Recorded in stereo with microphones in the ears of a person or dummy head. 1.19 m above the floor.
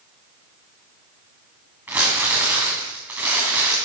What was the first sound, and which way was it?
Crumpling, 10° right (ahead or behind).